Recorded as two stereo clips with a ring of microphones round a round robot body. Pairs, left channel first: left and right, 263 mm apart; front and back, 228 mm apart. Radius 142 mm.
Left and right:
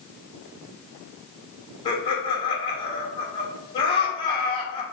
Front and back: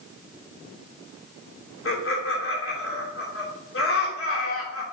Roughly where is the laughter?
Ahead.